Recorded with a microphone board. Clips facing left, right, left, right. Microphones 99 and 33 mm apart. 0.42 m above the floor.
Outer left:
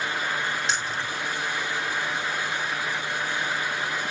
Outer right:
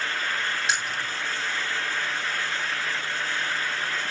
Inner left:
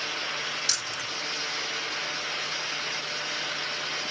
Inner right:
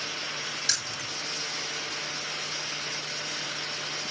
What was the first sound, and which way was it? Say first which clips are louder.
Keys jangling: even, inner left 1 dB; centre (ahead or behind).